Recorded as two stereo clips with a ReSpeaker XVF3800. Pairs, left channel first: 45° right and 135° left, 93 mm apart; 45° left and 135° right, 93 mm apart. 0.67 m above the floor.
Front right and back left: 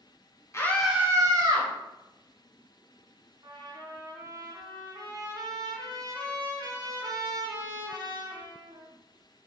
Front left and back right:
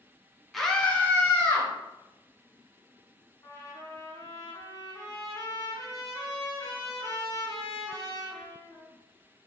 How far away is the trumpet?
About 1.1 m.